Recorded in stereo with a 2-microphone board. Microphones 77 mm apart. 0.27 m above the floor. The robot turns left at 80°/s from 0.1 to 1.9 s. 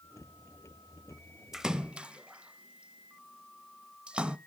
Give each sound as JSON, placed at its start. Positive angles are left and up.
{"t": 1.5, "sound": "a splash", "side_deg": -5, "distance_m": 0.5}